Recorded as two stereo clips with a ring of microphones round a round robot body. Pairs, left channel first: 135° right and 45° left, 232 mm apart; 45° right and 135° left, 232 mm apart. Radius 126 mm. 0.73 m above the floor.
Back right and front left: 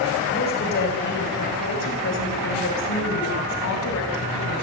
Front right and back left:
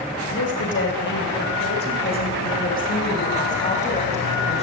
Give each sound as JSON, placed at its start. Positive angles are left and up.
{"t": 0.3, "sound": "a woman speaking", "azimuth_deg": -85, "distance_m": 5.0}